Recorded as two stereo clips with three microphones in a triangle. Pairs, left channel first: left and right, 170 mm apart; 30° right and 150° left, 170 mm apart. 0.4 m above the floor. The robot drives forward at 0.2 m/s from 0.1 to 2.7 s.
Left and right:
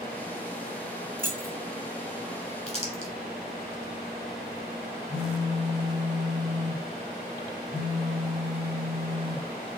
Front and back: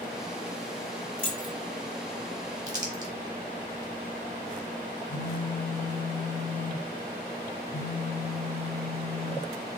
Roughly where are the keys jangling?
Right.